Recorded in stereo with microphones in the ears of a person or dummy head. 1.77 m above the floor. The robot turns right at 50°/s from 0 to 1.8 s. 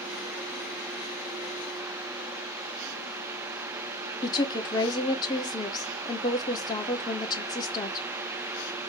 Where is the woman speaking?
25° left (ahead or behind), 0.9 m.